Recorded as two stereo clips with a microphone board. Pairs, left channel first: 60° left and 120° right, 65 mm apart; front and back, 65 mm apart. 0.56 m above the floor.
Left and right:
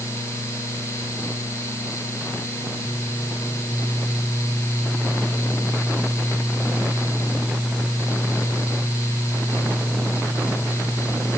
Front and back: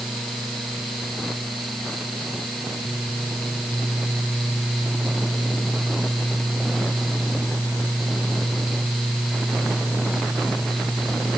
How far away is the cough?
No cough in this recording.